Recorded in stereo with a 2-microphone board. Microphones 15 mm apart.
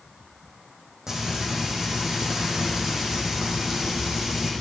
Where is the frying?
30° right (ahead or behind), 4 m.